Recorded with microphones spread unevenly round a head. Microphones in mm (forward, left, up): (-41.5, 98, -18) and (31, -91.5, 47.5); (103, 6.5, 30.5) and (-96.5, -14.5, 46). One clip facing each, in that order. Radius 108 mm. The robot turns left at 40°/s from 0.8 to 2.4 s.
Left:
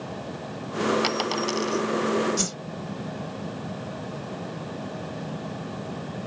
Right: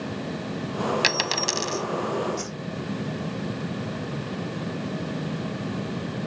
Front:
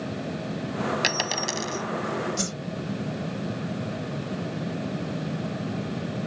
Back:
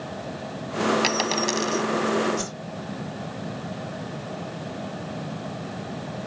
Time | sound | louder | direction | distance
1.0 | a dropped coin | left 2 dB, back 5 dB | 70° right | ?
2.4 | a whoosh | left 3 dB, even | 70° left | ?